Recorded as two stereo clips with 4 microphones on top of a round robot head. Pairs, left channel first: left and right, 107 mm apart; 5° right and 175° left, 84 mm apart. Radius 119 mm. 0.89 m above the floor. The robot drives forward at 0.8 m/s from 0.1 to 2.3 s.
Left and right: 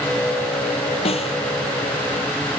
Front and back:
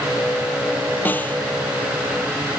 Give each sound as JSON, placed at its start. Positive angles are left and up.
{"t": 1.1, "sound": "a snare drum", "azimuth_deg": 65}